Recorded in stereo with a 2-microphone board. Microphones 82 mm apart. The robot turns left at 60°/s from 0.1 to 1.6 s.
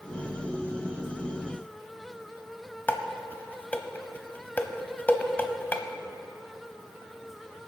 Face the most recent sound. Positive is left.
turn(degrees=20)  # may be behind; listen again after turning